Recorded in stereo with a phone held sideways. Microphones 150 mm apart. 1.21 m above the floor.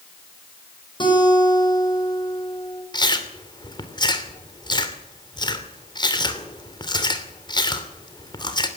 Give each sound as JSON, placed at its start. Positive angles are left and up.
{"t": 1.0, "sound": "a guitar", "side_deg": 30, "distance_m": 7.0}
{"t": 2.9, "sound": "chewing", "side_deg": 30, "distance_m": 2.5}